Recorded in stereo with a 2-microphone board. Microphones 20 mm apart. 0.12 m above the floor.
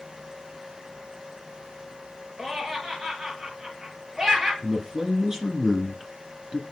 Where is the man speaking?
30° right (ahead or behind), 1.4 m.